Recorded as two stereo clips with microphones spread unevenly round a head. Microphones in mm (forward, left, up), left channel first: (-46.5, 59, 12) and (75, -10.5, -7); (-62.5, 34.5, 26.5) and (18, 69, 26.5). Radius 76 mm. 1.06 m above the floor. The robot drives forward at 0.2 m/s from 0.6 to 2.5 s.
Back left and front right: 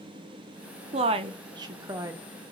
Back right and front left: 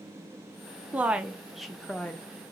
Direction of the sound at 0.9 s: 50° right.